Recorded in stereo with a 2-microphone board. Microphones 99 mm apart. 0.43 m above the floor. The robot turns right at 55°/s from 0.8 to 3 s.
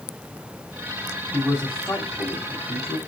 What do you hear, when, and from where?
1.3 s a man speaking: 5° right (ahead or behind), 3 m; by 3.0 s 70° left (ahead or behind), 3 m